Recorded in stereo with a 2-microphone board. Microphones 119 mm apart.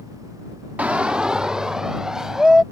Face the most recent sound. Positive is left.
turn(degrees=-5)  # may be behind; listen again after turning